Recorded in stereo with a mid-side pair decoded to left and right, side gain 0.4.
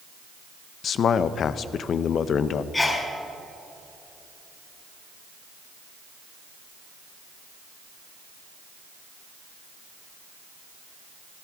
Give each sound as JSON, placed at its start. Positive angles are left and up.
{"t": 0.8, "sound": "a man speaking", "azimuth_deg": 65, "distance_m": 0.6}
{"t": 2.7, "sound": "a sneeze", "azimuth_deg": 25, "distance_m": 4.0}